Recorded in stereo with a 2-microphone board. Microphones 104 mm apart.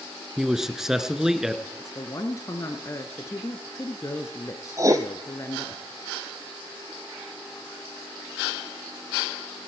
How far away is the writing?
About 1.1 m.